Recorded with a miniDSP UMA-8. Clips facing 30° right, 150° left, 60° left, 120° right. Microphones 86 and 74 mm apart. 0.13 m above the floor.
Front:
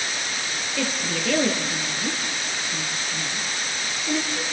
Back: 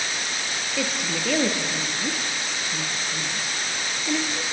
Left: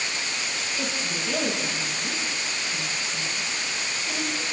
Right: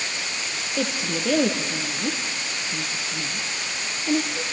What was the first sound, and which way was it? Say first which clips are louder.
A woman speaking: front 1 dB, right 6 dB; 125° right.